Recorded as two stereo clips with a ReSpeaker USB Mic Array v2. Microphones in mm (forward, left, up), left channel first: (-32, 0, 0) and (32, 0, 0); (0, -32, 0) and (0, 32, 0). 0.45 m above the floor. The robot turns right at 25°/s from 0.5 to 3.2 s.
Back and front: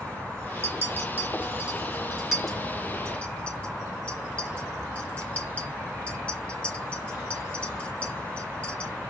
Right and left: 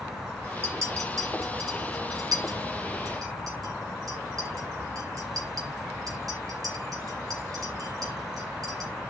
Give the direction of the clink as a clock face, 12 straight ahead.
10 o'clock.